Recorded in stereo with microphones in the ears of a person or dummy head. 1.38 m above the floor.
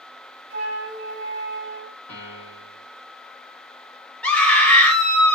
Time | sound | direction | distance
0.5 | a flute | 45° right (ahead or behind) | 0.9 m
2.1 | a piano | 10° left (ahead or behind) | 1.5 m
4.2 | a scream | centre (ahead or behind) | 0.8 m